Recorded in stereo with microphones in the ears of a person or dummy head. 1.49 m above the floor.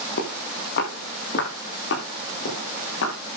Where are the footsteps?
55° left (ahead or behind), 4.5 m; by 3.1 s 75° left (ahead or behind), 7 m.